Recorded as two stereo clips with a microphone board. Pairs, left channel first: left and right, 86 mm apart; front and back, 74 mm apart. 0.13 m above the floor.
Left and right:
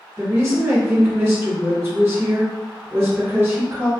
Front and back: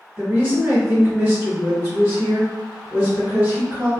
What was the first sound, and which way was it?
A woman speaking, 135° right.